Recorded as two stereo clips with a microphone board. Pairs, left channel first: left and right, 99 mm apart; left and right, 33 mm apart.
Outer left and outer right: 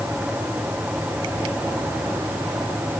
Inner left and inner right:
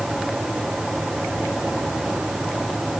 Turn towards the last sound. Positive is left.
No sound to turn to.